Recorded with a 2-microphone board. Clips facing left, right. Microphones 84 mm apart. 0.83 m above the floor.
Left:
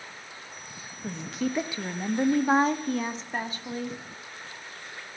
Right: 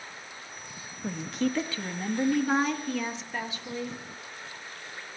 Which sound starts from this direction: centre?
A woman speaking, at 1.0 s.